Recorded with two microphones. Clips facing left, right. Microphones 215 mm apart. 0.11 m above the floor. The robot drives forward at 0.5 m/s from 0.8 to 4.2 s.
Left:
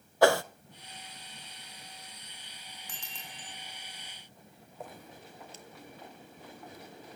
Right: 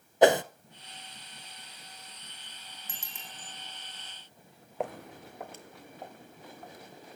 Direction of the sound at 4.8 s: 80° right.